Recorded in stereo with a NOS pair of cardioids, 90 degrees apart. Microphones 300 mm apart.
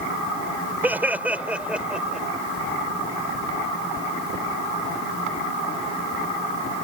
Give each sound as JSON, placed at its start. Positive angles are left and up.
{"t": 0.8, "sound": "laughter", "azimuth_deg": -5}